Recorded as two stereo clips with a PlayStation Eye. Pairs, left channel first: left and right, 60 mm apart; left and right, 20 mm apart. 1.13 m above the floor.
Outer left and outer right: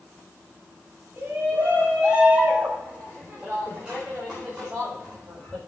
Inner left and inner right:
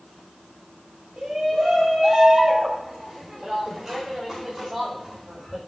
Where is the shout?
25° right (ahead or behind), 5 m; by 5.6 s centre (ahead or behind), 4 m.